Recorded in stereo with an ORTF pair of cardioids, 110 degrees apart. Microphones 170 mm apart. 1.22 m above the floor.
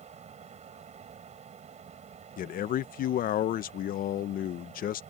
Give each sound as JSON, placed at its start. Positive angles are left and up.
{"t": 0.0, "sound": "a fan", "azimuth_deg": -40}
{"t": 2.4, "sound": "a man speaking", "azimuth_deg": 60}